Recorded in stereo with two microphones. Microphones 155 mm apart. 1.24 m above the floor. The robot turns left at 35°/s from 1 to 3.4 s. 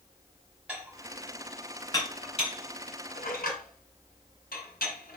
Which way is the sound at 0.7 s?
5° right (ahead or behind).